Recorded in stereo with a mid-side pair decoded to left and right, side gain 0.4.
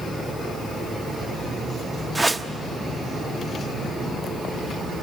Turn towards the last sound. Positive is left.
turn(degrees=-25)